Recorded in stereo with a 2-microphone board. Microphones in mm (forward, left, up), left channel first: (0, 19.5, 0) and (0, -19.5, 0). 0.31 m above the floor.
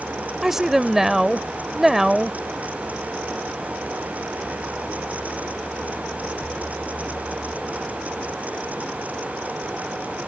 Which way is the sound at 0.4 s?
10° right (ahead or behind).